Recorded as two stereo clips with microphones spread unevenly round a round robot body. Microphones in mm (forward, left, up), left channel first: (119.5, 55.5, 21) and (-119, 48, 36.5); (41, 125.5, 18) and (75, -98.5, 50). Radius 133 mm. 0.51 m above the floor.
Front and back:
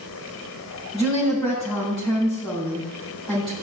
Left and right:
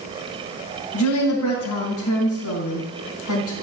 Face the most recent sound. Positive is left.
turn(degrees=90)